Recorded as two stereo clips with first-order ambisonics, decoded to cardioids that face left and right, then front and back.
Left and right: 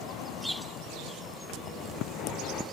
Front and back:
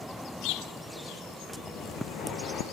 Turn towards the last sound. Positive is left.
turn(degrees=50)